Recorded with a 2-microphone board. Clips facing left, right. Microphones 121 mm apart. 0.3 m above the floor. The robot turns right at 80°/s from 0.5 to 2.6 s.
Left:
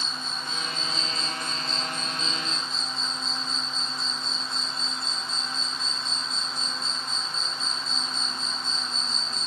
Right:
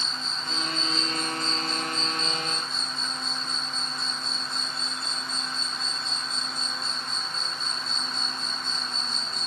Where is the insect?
90° left; by 9.5 s 105° right.